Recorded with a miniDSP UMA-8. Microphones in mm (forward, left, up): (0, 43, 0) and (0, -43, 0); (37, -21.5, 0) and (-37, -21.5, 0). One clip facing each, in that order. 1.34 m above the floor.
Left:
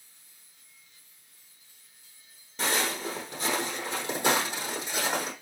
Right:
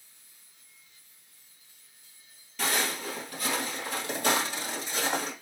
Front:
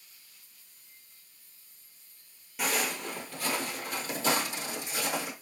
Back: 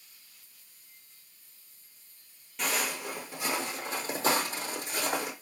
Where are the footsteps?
80° left, 1.5 m; by 5.3 s 165° left, 2.5 m.